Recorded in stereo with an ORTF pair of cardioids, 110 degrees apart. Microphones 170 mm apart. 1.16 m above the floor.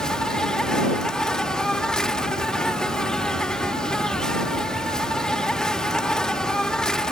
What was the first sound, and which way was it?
An insect, 5° left.